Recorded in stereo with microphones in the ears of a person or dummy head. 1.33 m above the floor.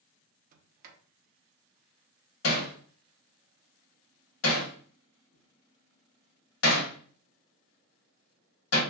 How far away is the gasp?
No gasp in this recording.